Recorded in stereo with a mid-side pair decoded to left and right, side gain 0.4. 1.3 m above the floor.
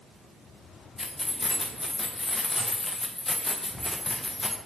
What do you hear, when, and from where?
1.0 s keys jangling: 25° left, 0.6 m